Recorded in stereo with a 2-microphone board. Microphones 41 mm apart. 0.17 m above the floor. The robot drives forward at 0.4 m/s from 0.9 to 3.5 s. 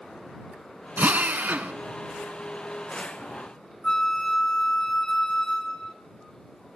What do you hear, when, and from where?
1.0 s a drill: 50° right (ahead or behind), 0.8 m
3.8 s a flute: 20° left (ahead or behind), 0.9 m